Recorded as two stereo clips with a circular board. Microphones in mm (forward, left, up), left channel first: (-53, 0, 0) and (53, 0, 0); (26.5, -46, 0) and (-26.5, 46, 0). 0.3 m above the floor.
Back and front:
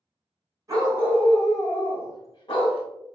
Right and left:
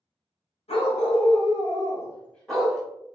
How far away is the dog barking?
About 1.0 m.